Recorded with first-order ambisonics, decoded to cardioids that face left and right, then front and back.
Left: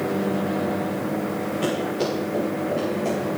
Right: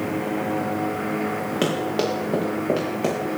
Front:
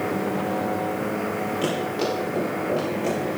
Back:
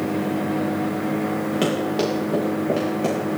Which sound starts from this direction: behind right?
Running footsteps, at 1.6 s.